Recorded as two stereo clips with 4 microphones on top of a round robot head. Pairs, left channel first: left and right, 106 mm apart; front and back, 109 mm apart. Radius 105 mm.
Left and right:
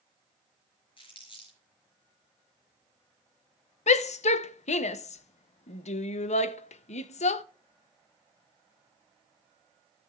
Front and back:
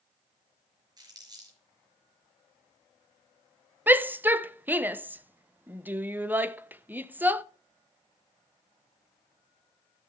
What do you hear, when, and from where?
1.0 s crumpling: 130° left, 4.5 m
3.9 s a shout: 105° left, 0.7 m